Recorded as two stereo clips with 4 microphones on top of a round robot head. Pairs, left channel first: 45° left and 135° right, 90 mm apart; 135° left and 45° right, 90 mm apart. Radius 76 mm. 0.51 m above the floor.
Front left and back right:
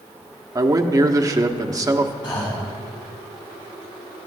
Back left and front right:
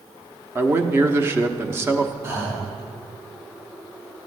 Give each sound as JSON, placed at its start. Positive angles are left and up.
{"t": 0.6, "sound": "a man speaking", "azimuth_deg": -100, "distance_m": 1.0}
{"t": 2.2, "sound": "breathing", "azimuth_deg": 15, "distance_m": 3.5}